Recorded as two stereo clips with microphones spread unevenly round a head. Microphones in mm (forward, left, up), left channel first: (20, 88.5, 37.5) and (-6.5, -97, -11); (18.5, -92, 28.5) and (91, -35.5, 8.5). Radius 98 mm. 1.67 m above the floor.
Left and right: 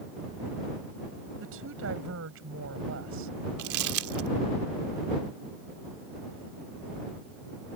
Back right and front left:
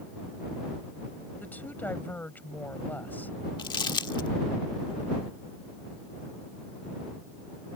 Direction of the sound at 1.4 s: 70° right.